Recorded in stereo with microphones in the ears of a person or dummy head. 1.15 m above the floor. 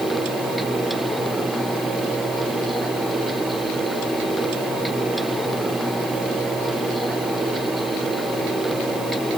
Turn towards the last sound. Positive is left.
No sound to turn to.